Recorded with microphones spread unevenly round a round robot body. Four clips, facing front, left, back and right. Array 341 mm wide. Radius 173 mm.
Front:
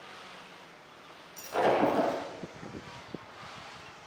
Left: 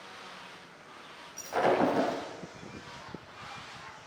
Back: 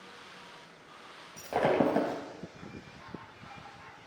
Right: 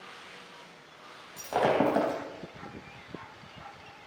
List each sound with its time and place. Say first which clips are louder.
1.4 s breaking glass: right 1 dB, front 1 dB; 145° right, 3 m